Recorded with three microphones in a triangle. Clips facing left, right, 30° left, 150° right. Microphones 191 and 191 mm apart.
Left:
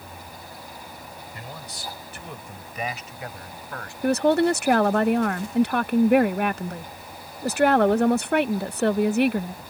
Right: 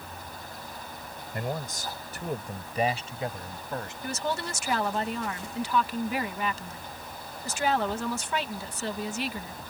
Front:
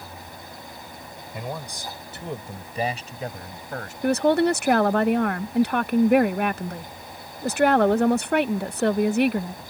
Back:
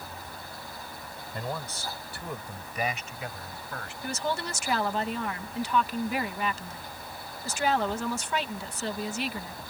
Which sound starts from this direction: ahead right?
A man speaking, at 1.3 s.